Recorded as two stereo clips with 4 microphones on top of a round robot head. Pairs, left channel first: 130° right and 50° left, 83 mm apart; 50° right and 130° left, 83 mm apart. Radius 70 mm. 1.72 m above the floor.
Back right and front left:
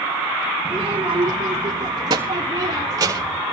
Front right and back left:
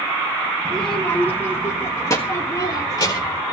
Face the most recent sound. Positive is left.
turn(degrees=-5)